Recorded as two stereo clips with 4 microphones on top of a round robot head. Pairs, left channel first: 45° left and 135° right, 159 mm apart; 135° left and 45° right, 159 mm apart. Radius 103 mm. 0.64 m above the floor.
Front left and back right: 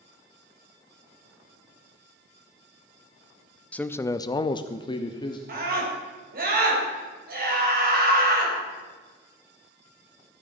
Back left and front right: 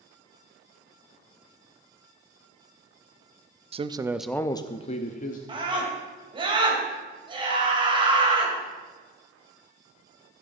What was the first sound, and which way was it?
A man speaking, 30° right.